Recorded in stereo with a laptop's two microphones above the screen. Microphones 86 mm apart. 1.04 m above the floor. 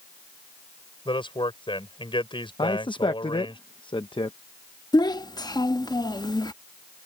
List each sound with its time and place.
1.1 s a man speaking: 75° left (ahead or behind)
2.6 s a man speaking: 70° left (ahead or behind)
4.9 s a child speaking: 50° left (ahead or behind)